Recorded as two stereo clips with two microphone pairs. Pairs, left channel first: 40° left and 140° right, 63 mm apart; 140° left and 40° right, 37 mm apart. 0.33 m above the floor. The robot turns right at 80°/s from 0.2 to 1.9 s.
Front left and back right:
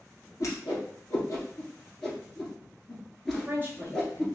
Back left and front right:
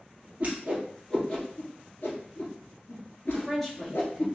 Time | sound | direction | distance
0.4 | a whoosh | 5° left | 1.6 m
3.3 | a woman speaking | 145° right | 1.2 m